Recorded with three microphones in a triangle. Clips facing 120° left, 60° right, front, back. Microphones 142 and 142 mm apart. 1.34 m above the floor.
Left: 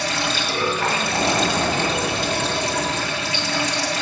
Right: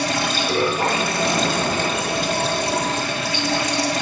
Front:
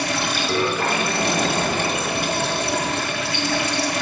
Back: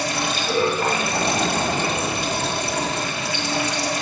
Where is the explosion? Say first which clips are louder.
Even, front 1 dB; 125° left, 3.5 m.